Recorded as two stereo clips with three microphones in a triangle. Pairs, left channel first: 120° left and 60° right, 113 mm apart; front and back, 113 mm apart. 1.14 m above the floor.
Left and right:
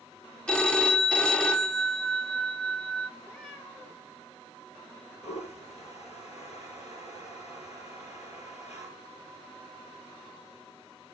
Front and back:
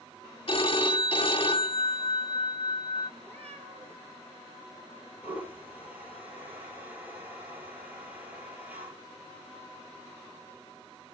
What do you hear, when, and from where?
0.5 s a phone ringing: 40° left, 1.4 m
3.2 s a cat meowing: 155° right, 7 m
5.2 s a toilet flushing: 105° left, 7 m